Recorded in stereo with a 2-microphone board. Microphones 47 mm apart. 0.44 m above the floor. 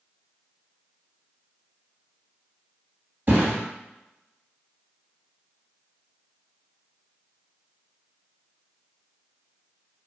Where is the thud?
45° right (ahead or behind), 1.9 m.